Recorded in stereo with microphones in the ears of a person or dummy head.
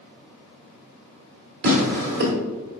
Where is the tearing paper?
50° right (ahead or behind), 1.4 m.